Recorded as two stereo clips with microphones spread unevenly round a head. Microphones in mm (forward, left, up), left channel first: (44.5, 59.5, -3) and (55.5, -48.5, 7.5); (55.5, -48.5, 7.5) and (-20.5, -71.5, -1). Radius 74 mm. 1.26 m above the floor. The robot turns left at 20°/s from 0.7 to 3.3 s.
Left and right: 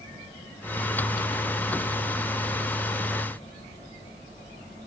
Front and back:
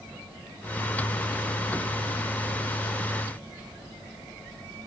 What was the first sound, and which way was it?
Only background noise.